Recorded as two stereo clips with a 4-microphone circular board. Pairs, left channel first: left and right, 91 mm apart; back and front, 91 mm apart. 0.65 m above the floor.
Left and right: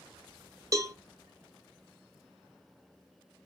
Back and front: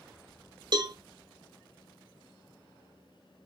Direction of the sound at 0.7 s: 35° right.